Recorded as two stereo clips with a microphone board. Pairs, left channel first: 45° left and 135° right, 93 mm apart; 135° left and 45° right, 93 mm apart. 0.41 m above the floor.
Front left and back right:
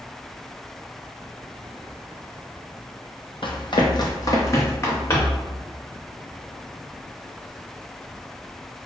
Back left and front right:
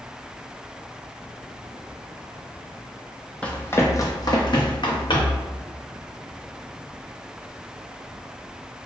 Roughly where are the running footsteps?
Ahead left.